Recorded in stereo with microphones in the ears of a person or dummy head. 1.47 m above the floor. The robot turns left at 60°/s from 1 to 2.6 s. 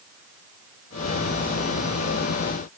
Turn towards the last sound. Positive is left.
No sound to turn to.